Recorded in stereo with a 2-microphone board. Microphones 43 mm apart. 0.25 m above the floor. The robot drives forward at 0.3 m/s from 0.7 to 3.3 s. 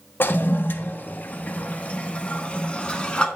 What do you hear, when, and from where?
0.2 s a toilet flushing: 55° left (ahead or behind), 0.6 m; by 3.3 s 25° left (ahead or behind), 1.0 m